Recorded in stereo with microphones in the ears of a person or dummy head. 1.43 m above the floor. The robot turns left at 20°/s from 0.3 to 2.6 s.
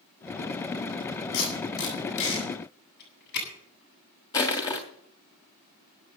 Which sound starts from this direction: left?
Tape being pulled, at 1.3 s.